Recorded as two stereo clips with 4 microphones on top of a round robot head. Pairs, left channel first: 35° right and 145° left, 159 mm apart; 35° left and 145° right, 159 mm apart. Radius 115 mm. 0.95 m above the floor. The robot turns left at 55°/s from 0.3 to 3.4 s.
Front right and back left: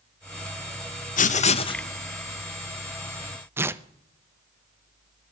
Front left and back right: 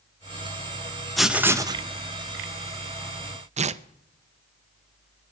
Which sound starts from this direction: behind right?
Tearing paper, at 3.6 s.